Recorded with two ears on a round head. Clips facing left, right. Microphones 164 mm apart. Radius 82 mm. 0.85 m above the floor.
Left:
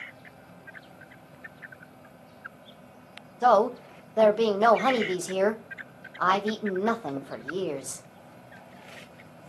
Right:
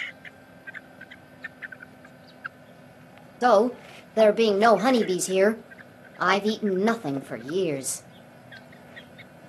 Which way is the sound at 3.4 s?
25° right (ahead or behind).